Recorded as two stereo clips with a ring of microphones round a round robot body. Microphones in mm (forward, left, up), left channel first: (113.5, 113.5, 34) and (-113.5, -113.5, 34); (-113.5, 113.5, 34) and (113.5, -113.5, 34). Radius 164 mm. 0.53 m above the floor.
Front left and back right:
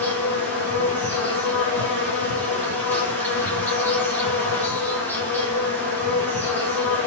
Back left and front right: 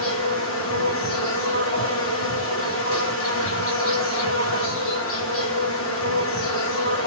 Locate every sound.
0.0 s an insect: 125° left, 2 m